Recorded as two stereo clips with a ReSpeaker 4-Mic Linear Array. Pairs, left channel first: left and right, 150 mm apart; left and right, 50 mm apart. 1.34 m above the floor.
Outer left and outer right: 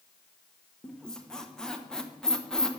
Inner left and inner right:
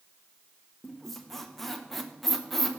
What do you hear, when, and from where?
0.8 s a squeak: 5° left (ahead or behind), 0.8 m